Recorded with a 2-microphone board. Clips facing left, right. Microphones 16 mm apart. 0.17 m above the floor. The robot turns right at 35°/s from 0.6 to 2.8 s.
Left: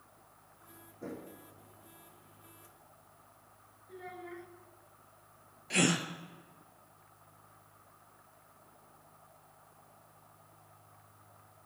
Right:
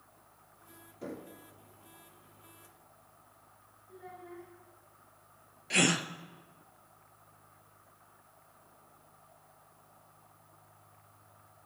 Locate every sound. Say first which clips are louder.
1.0 s knocking: right 1 dB; 70° right (ahead or behind), 4.5 m; by 1.3 s 65° right (ahead or behind), 4.5 m
3.9 s a child speaking: left 3 dB; 45° left (ahead or behind), 1.6 m
5.7 s a gasp: right 2 dB; 15° right (ahead or behind), 0.6 m